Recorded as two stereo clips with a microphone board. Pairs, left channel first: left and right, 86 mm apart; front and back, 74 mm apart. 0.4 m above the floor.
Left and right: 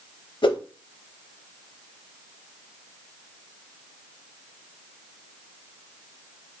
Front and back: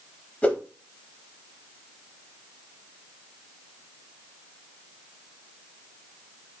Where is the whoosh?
70° left, 0.6 m.